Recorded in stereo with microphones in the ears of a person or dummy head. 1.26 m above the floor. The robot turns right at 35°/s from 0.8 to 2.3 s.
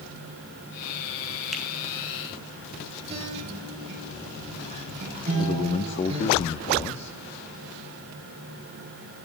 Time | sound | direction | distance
1.5 | a finger snap | 5° right (ahead or behind) | 2.5 m
3.1 | a guitar | 30° right (ahead or behind) | 7.5 m
5.4 | a man speaking | 25° left (ahead or behind) | 0.9 m